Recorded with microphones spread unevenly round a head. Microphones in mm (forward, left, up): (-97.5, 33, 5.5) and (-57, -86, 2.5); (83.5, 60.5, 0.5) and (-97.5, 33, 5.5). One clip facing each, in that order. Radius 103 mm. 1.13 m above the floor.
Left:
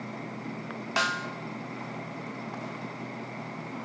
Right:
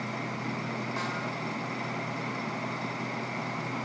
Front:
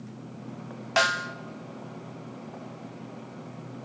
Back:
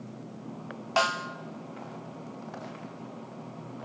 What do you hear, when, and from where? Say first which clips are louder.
1.0 s a snare drum: left 2 dB, front 1 dB; 85° left, 0.5 m